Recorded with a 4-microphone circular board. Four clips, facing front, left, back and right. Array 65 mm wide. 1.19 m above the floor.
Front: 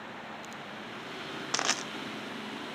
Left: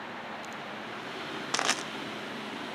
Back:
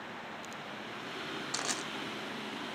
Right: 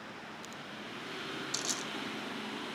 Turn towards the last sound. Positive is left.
turn(degrees=55)